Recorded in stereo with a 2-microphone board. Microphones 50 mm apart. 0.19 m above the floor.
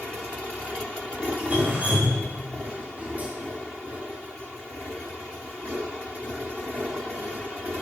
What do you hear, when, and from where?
1.4 s dripping: 25° right (ahead or behind), 4 m